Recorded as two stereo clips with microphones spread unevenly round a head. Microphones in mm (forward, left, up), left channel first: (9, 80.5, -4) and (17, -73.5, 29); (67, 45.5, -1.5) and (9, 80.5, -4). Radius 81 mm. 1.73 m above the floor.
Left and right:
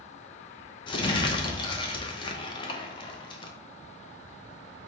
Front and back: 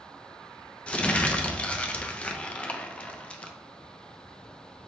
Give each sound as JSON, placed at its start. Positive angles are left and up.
{"t": 0.9, "sound": "crumpling", "azimuth_deg": 35, "distance_m": 0.6}